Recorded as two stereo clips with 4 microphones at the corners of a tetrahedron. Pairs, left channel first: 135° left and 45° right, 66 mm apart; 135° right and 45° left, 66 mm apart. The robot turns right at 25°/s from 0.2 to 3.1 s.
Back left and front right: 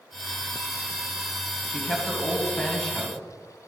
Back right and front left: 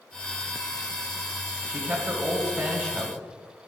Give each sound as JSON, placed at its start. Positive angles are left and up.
{"t": 1.7, "sound": "a man speaking", "azimuth_deg": 70, "distance_m": 1.5}